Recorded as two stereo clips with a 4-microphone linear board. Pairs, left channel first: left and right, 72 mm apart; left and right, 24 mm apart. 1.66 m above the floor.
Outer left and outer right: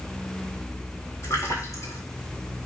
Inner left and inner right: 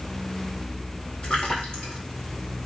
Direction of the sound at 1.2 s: 50° left (ahead or behind).